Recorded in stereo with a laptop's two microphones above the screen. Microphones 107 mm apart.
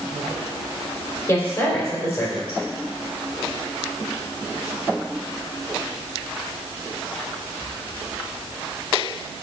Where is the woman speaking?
30° left (ahead or behind), 3 m.